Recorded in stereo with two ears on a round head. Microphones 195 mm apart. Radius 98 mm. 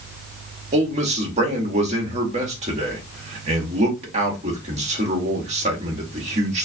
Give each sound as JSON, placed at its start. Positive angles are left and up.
{"t": 0.7, "sound": "a man speaking", "side_deg": -35, "distance_m": 1.7}